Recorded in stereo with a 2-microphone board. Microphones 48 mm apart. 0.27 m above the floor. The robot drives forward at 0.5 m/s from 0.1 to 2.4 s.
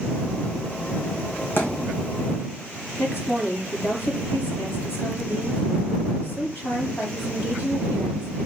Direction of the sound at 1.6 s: 50° left (ahead or behind).